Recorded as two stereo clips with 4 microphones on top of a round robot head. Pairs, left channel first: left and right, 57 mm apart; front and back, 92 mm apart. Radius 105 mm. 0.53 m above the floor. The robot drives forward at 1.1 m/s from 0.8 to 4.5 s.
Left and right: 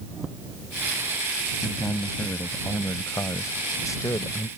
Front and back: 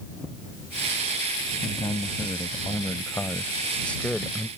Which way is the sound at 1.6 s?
45° left.